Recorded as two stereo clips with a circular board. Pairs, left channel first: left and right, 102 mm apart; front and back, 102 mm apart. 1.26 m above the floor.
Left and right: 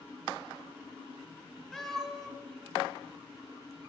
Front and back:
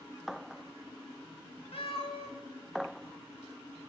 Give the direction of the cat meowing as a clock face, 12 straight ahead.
12 o'clock.